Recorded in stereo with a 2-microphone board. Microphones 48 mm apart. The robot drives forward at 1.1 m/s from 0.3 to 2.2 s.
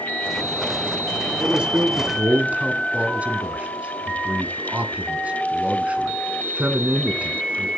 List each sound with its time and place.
1.4 s a man speaking: 20° right (ahead or behind), 2.5 m; by 7.7 s 25° right (ahead or behind), 1.9 m